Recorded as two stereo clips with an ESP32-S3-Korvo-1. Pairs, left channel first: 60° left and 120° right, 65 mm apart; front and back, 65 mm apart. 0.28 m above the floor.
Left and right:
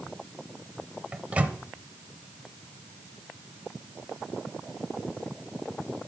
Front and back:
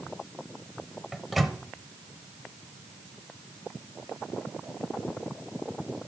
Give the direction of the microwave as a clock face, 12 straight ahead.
3 o'clock.